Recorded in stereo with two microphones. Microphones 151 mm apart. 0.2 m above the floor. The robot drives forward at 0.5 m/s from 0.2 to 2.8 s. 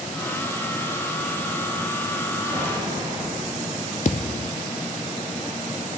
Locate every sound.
2.5 s an explosion: 35° right (ahead or behind), 6 m; by 4.0 s 30° right (ahead or behind), 6 m
4.0 s a thud: 50° left (ahead or behind), 0.8 m